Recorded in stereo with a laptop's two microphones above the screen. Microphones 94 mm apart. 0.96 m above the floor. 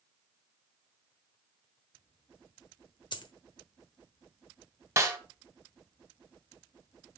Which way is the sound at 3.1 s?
55° left (ahead or behind).